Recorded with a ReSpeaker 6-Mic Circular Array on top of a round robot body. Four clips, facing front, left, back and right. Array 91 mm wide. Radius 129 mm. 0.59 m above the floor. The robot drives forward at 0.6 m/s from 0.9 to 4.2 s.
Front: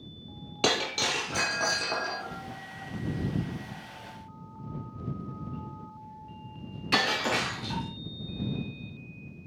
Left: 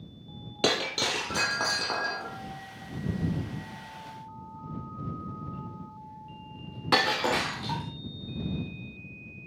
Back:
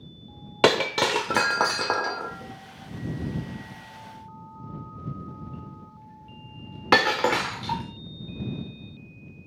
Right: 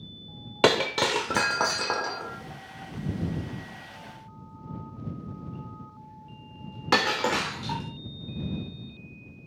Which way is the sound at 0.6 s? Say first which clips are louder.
Right 6 dB, back 8 dB; 150° right.